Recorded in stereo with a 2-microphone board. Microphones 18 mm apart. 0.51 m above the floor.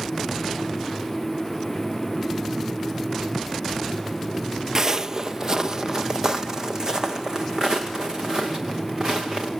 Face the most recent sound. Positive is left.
turn(degrees=-35)  # may be behind; listen again after turning